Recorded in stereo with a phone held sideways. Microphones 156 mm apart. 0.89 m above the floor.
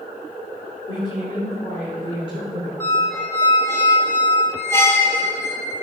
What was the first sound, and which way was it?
A woman speaking, 35° left (ahead or behind).